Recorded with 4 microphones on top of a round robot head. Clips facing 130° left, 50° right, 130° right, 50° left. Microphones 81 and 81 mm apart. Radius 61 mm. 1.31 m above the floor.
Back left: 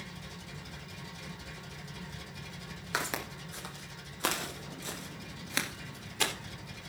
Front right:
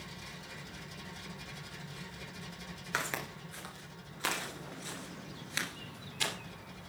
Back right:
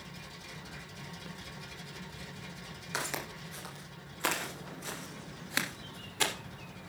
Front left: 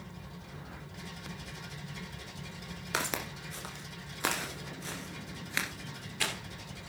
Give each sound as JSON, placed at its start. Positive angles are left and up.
{"t": 2.9, "sound": "footsteps", "azimuth_deg": 60, "distance_m": 1.4}